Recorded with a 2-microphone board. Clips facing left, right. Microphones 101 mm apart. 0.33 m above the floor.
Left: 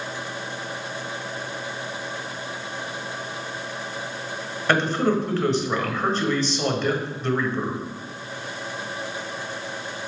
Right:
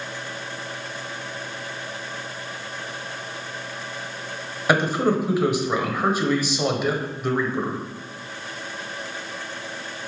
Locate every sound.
4.7 s a man speaking: 10° right (ahead or behind), 1.2 m